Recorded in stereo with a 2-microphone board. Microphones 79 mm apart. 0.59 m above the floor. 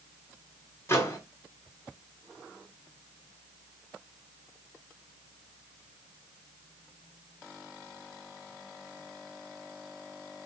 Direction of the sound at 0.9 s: 30° left (ahead or behind).